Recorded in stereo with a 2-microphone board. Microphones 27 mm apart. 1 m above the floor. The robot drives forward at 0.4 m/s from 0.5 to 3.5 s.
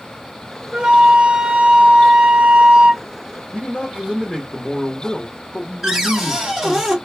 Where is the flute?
30° right (ahead or behind), 0.8 m; by 3.0 s 35° right (ahead or behind), 0.7 m.